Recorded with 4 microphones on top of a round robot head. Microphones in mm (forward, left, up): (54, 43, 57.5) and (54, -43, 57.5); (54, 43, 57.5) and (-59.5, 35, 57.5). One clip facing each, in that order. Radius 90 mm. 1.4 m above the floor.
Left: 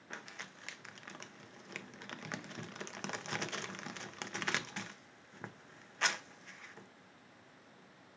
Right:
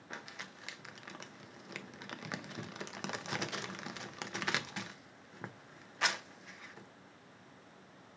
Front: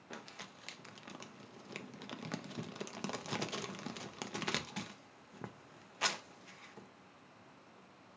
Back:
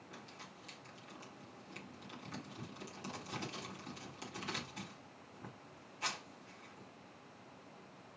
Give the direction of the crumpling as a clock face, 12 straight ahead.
12 o'clock.